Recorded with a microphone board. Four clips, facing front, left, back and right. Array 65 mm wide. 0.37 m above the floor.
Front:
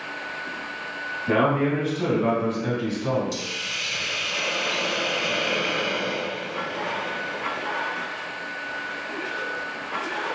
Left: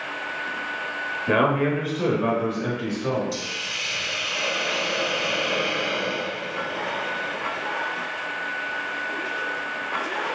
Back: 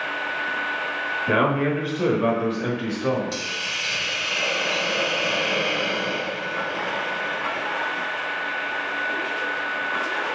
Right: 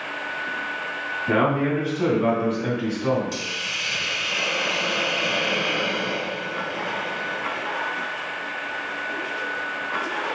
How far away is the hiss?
About 1.3 m.